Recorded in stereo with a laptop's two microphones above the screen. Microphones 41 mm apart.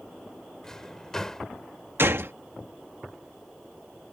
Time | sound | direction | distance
0.6 | a drawer | 15° left (ahead or behind) | ?
2.0 | a gunshot | 60° right (ahead or behind) | ?